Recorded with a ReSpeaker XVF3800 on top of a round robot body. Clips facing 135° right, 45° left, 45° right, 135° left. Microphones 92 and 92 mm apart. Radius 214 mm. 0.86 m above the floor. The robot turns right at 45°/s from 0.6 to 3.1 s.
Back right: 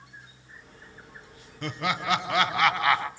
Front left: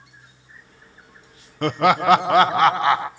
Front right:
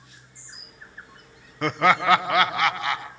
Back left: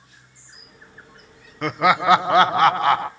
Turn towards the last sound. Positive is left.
turn(degrees=110)